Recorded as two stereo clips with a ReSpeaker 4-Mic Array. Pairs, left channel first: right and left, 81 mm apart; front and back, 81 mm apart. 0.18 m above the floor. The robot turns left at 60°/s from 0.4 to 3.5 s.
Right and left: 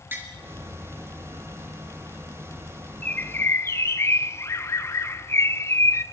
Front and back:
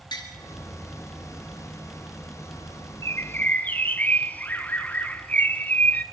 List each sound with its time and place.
0.1 s tapping: 25° left, 3.5 m
3.0 s a bird: 30° right, 0.7 m; by 6.0 s 55° right, 0.7 m